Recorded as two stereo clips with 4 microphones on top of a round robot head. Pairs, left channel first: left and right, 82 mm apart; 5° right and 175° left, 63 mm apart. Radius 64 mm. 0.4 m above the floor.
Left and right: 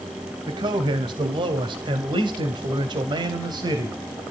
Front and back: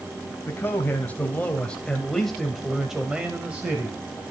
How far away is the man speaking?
About 2 m.